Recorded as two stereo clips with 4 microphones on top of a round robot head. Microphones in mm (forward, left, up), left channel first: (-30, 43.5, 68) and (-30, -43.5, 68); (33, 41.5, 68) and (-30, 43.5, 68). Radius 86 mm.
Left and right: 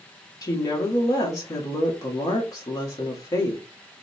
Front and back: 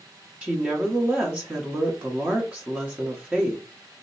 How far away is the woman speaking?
About 1.0 m.